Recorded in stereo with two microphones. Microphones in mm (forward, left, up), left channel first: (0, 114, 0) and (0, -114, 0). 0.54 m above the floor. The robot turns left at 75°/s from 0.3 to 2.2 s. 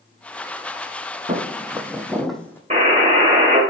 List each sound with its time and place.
1.3 s footsteps: 40° right (ahead or behind), 0.8 m; by 2.6 s 10° left (ahead or behind), 1.0 m
2.7 s a buzzer: 30° right (ahead or behind), 1.3 m